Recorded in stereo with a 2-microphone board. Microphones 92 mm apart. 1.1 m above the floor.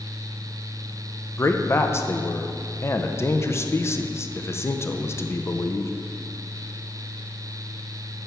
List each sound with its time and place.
1.4 s a man speaking: 30° left (ahead or behind), 0.6 m